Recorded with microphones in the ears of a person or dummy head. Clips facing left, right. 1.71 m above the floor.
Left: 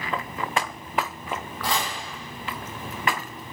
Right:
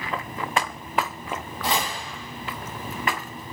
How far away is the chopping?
About 0.8 m.